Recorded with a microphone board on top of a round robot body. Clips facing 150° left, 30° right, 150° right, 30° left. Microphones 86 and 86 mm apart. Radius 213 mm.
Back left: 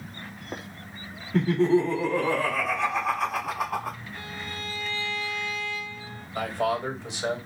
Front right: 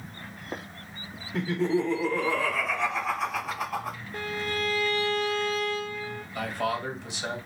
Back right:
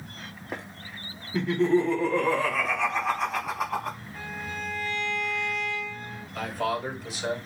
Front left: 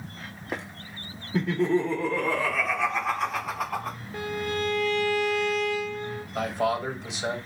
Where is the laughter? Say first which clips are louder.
Back left 5 dB, back right 1 dB; 110° left, 1.7 m; by 4.0 s 120° left, 3 m.